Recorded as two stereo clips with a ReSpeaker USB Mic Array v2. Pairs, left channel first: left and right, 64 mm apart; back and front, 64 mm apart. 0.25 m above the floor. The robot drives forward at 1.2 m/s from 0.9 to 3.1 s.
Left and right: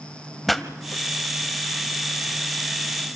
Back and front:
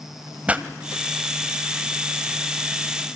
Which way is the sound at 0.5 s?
5° left.